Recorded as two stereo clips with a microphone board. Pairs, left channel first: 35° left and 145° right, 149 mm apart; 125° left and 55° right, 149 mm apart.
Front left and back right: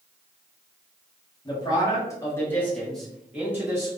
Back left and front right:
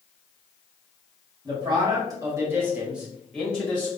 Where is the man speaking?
10° right, 1.4 m; by 3.9 s straight behind, 1.1 m.